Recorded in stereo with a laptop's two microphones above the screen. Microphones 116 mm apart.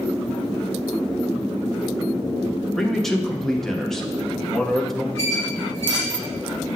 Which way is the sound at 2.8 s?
5° left (ahead or behind).